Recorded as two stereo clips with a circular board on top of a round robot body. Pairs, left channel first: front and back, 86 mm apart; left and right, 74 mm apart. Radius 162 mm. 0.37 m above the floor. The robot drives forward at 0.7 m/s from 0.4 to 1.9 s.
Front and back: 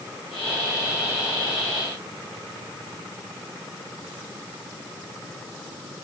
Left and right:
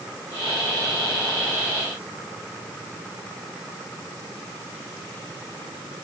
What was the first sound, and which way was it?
Only background noise.